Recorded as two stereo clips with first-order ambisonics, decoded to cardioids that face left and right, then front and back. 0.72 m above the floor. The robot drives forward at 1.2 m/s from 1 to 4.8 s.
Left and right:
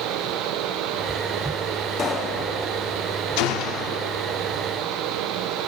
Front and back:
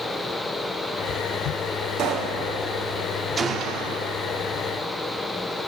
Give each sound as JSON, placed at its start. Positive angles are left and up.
{"t": 2.0, "sound": "a pop", "azimuth_deg": 140, "distance_m": 1.5}
{"t": 3.4, "sound": "a gunshot", "azimuth_deg": 105, "distance_m": 0.6}